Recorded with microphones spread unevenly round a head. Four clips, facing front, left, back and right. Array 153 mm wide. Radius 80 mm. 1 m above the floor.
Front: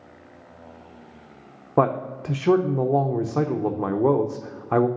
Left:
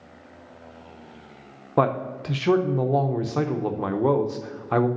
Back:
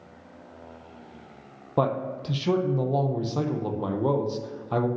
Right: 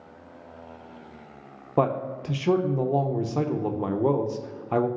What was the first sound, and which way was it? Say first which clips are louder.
A man speaking: left 2 dB, front 4 dB; 5° left.